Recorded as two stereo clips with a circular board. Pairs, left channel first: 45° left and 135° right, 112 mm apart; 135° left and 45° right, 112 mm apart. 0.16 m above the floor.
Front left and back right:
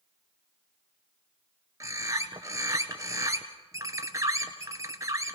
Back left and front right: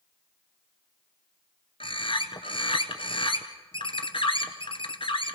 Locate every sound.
1.8 s a bird: 165° left, 1.8 m